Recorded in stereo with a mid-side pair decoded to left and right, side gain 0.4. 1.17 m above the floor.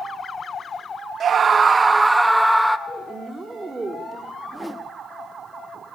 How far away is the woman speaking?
About 3 m.